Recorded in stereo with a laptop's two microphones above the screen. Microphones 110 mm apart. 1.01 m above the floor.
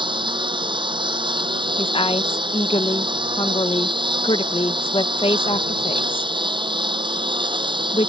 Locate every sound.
0.0 s a lawn mower: 50° right (ahead or behind)
1.8 s a woman speaking: 55° left (ahead or behind)